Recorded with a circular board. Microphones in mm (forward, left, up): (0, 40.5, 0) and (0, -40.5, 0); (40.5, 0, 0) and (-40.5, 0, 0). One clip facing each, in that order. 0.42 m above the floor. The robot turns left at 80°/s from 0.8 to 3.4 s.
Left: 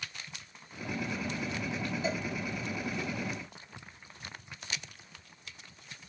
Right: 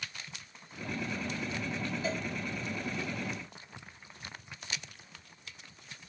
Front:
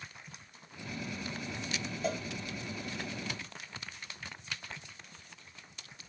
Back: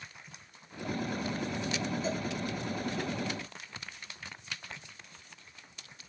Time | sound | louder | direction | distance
2.0 | a cowbell | left 2 dB, back 1 dB | 25° left | 0.6 m